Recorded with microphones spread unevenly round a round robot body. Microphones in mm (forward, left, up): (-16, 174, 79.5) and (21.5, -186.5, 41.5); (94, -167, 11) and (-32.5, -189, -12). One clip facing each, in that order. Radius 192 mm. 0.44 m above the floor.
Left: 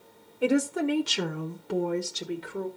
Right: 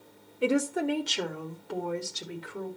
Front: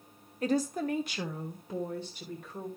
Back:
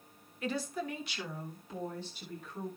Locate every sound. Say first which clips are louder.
0.4 s a woman speaking: left 2 dB, front 7 dB; 15° right, 1.2 m; by 2.7 s 65° left, 1.8 m